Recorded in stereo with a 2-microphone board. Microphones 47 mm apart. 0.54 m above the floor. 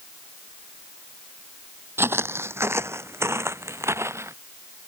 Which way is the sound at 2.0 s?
65° right (ahead or behind).